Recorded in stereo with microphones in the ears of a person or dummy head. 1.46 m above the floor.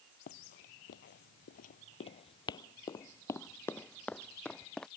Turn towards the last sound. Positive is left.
turn(degrees=5)  # may be behind; listen again after turning